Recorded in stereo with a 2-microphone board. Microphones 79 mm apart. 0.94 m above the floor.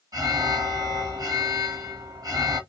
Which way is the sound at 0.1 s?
55° right (ahead or behind).